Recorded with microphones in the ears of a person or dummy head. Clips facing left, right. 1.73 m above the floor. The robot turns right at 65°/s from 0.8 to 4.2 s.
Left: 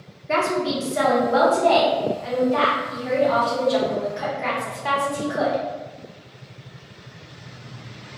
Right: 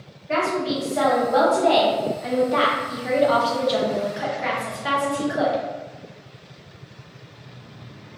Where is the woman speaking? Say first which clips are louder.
Left 1 dB; 130° left, 0.8 m; by 5.6 s 10° right, 0.8 m.